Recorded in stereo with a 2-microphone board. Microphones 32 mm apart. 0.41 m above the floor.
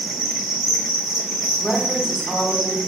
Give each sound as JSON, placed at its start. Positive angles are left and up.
{"t": 0.0, "sound": "an insect", "side_deg": 0, "distance_m": 1.3}
{"t": 1.6, "sound": "a woman speaking", "side_deg": 30, "distance_m": 1.2}